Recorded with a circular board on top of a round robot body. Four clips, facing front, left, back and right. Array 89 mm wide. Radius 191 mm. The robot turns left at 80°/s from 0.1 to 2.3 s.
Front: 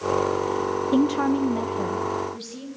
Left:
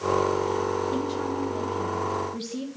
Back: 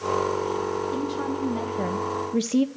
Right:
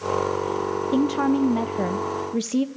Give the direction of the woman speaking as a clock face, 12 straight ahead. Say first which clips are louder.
Right 7 dB, front 7 dB; 1 o'clock.